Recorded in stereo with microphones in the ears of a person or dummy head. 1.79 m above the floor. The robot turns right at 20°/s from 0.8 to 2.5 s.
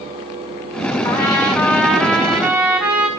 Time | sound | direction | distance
1.0 | a trumpet | 25° left (ahead or behind) | 4.5 m